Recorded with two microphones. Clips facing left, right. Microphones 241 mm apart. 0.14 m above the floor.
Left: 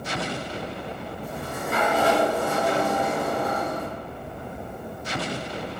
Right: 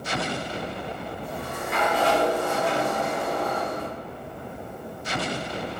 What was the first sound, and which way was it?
A sliding door, 45° left (ahead or behind).